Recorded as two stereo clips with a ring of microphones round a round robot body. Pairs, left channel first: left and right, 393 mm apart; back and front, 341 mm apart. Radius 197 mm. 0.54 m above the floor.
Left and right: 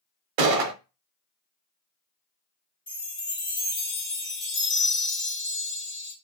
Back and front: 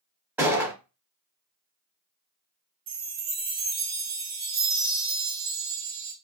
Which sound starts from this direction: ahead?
A chime, at 2.9 s.